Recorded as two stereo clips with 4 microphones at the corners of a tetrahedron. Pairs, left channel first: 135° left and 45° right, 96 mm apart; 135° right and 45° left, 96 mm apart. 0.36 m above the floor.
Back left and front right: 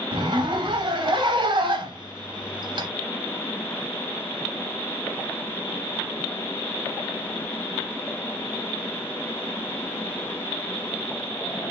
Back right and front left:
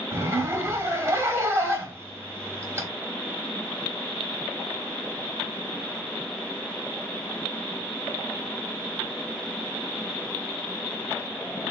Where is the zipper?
15° right, 0.8 m.